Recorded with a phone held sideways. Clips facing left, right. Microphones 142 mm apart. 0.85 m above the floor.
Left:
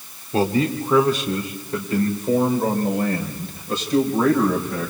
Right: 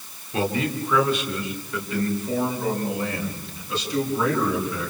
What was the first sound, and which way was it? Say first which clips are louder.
A man speaking: left 5 dB; 35° left (ahead or behind).